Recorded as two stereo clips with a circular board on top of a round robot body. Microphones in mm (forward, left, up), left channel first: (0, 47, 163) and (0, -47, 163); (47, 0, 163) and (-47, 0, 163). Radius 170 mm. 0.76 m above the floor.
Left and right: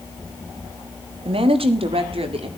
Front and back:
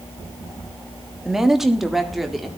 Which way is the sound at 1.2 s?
95° right.